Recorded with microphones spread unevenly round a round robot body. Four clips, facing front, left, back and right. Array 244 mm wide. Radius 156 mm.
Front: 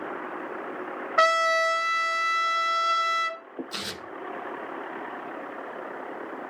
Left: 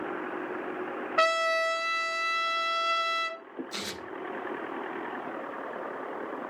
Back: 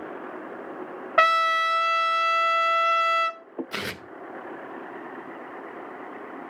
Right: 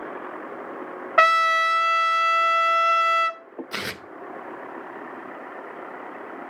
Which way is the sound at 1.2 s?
135° right.